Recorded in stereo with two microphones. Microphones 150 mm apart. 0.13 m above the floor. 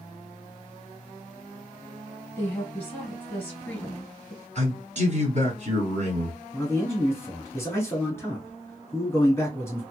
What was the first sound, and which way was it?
A woman speaking, 15° left (ahead or behind).